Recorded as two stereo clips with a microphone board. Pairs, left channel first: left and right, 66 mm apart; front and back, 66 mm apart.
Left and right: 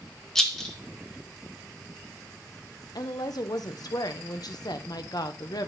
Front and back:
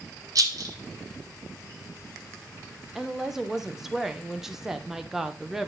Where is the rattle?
175° left, 1.4 m.